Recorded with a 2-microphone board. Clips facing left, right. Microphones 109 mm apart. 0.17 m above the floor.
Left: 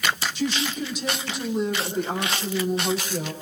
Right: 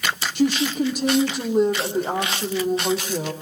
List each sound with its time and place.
0.3 s a woman speaking: 60° right (ahead or behind), 7 m; by 3.3 s 35° right (ahead or behind), 7 m